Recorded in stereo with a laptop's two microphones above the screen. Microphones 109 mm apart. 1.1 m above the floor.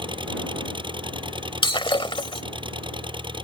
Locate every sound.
0.0 s an engine running: 45° right (ahead or behind)
1.6 s breaking glass: 50° left (ahead or behind)